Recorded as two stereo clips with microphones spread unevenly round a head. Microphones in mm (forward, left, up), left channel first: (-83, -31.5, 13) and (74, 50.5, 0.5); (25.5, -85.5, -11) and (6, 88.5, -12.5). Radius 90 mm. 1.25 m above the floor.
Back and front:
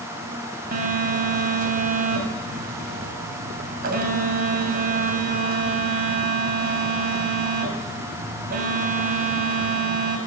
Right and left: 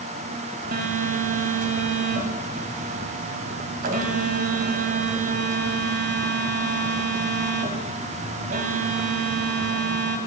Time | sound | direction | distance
0.7 | a phone buzzing | 65° left | 1.9 m